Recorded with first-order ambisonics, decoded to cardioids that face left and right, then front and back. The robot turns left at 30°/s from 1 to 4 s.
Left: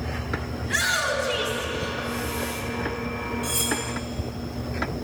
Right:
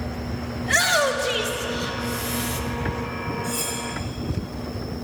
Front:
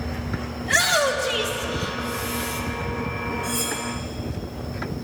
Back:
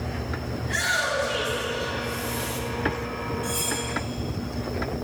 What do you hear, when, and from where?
0.6 s a shout: 50° right, 1.7 m; by 2.6 s 100° right, 1.7 m
3.4 s cutlery clinking: 95° left, 3.5 m; by 3.8 s 85° left, 3.5 m